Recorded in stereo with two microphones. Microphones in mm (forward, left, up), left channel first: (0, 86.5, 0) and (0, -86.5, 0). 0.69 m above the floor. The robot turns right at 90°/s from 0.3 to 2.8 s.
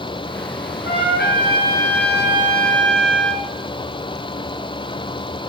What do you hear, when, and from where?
0.8 s a trumpet: 75° left, 7 m; by 3.5 s 110° right, 7 m